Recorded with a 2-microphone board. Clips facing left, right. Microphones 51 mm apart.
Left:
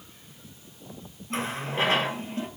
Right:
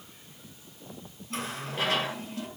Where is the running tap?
30° left (ahead or behind), 1.9 m.